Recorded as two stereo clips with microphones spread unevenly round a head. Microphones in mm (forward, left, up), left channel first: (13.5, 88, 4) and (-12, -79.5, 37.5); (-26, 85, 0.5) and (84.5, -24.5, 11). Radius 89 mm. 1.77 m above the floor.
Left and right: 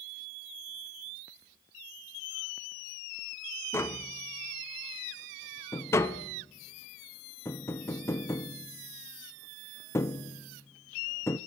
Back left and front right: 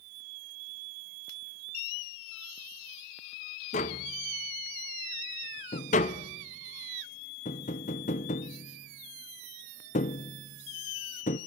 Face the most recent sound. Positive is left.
turn(degrees=165)